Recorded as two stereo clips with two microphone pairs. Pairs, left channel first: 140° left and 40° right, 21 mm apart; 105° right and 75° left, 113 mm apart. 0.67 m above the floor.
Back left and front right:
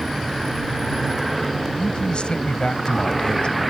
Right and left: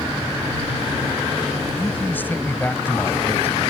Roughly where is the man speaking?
Behind.